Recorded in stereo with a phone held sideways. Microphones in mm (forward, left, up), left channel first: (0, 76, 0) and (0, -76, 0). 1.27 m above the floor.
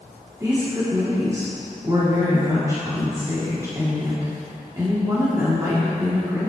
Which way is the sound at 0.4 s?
20° right (ahead or behind).